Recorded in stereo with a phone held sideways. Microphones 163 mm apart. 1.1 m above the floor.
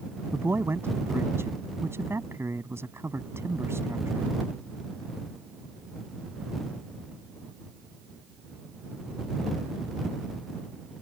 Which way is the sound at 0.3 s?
15° right (ahead or behind).